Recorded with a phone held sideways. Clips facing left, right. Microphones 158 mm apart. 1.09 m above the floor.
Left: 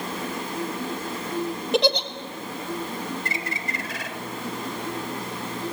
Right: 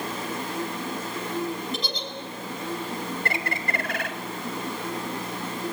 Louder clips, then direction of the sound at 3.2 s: Right 2 dB; 60° right (ahead or behind).